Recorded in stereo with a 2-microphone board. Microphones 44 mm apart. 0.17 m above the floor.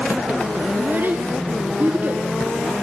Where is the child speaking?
55° right (ahead or behind), 1.4 m.